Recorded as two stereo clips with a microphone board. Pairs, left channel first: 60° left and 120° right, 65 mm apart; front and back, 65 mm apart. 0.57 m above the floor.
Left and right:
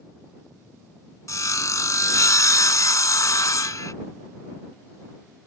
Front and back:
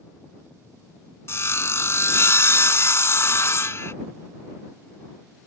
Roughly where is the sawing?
Ahead left.